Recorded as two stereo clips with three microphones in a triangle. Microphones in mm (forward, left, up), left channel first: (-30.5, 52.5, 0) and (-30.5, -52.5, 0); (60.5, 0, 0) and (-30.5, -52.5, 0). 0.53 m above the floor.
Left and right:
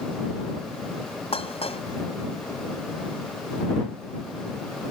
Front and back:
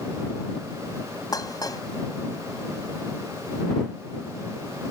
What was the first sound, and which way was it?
Dishes clattering, 80° left.